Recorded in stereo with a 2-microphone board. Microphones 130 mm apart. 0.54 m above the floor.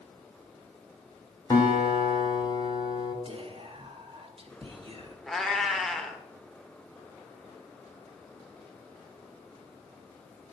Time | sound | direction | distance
1.5 | a guitar | 30° left (ahead or behind) | 2 m
3.2 | whispering | 40° right (ahead or behind) | 1.1 m
5.3 | a cat meowing | centre (ahead or behind) | 0.7 m